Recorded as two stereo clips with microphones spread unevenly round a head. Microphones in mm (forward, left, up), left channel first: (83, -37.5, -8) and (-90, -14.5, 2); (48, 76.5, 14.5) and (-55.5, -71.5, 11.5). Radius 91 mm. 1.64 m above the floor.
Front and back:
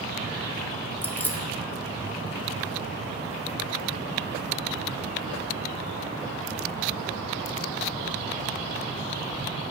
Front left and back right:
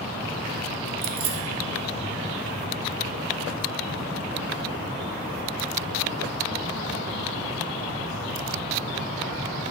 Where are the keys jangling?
85° right, 0.7 m.